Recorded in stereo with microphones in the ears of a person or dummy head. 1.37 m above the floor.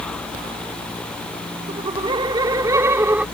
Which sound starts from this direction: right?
Laughter, at 1.7 s.